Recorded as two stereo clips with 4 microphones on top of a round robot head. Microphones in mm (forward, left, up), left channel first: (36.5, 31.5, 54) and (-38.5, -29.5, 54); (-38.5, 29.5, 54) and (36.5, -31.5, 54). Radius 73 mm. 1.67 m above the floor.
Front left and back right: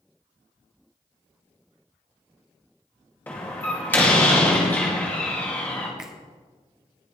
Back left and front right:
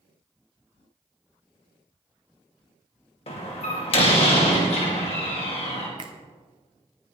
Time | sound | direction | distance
3.3 | a door slam | 110° left | 2.5 m
6.0 | a finger snap | 60° right | 0.6 m